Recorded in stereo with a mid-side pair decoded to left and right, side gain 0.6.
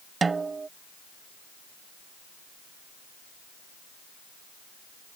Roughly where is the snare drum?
Ahead right.